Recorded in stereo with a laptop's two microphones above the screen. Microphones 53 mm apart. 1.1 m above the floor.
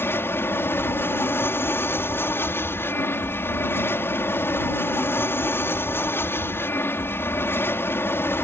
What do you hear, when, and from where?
0.0 s an aircraft: 50° left (ahead or behind)